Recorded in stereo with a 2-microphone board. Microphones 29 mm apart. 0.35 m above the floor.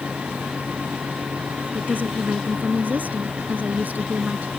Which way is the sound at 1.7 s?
70° right (ahead or behind).